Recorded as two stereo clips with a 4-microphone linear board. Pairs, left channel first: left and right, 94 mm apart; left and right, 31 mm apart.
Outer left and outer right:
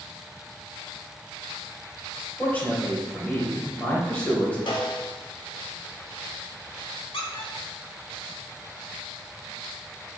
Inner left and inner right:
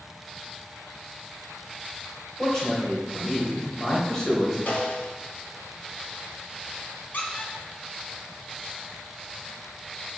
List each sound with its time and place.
2.4 s a man speaking: 15° left (ahead or behind), 2.5 m
4.7 s a snare drum: 60° left (ahead or behind), 1.6 m
7.1 s a squeak: 75° left (ahead or behind), 1.2 m